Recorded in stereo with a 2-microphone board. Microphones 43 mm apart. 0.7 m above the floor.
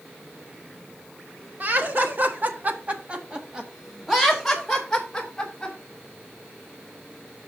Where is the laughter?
50° right (ahead or behind), 1.5 m; by 5.8 s 10° left (ahead or behind), 2.5 m.